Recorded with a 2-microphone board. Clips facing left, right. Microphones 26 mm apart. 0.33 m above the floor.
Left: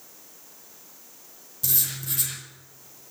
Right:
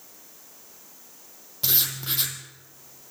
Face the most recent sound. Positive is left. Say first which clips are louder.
# right 4 dB
turn(degrees=-45)  # may be behind; listen again after turning